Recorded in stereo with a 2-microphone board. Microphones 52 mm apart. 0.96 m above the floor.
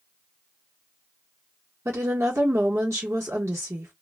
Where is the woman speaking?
65° right (ahead or behind), 1.0 m.